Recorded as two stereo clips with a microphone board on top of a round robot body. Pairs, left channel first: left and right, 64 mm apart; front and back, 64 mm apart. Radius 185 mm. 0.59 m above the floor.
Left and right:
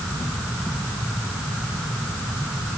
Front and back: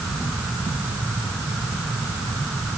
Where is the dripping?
I don't hear dripping.